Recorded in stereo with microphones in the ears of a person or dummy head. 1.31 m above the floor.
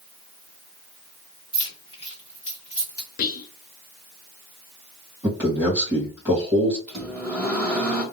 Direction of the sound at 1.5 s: 25° left (ahead or behind).